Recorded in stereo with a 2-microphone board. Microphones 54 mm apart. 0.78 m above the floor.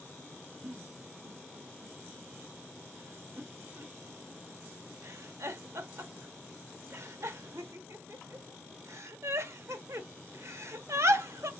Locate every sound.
0.6 s a giggle: 65° right (ahead or behind), 0.7 m